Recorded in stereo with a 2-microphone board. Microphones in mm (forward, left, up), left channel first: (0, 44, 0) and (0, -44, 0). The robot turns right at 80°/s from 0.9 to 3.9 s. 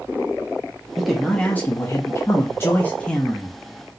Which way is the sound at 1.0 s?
10° right.